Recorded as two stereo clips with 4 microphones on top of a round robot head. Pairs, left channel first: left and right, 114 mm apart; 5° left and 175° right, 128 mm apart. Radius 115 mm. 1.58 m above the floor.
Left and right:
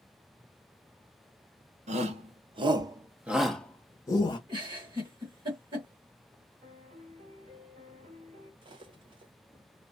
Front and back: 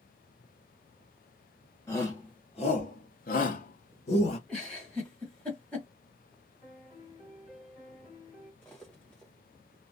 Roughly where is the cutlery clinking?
Right.